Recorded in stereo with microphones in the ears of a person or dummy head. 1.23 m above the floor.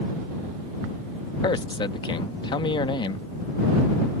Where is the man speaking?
25° left (ahead or behind).